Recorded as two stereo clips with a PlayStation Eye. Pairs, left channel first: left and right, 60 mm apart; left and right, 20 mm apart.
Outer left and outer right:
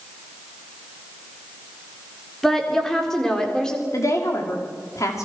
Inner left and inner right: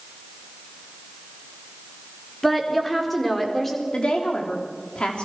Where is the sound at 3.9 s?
60° left (ahead or behind), 4.5 m.